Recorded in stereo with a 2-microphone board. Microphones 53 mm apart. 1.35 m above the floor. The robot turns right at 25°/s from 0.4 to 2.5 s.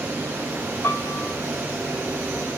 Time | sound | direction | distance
0.8 | a piano | 45° left (ahead or behind) | 1.2 m